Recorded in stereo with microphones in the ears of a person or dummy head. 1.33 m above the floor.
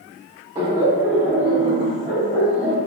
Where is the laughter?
20° right (ahead or behind), 1.4 m; by 2.8 s 5° left (ahead or behind), 2.5 m.